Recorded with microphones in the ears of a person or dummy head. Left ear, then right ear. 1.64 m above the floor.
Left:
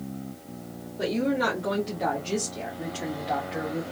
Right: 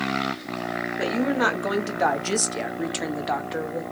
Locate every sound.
1.0 s a woman speaking: 35° right (ahead or behind), 1.1 m; by 3.8 s 30° right (ahead or behind), 0.8 m